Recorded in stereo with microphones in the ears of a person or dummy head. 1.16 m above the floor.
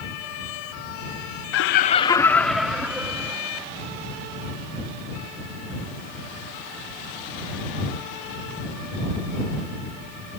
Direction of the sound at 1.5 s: 60° left (ahead or behind).